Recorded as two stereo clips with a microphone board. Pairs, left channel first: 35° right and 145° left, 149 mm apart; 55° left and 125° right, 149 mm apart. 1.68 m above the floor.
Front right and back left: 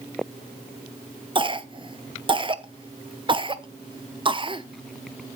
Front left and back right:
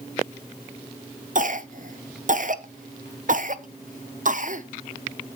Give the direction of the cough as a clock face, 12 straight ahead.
5 o'clock.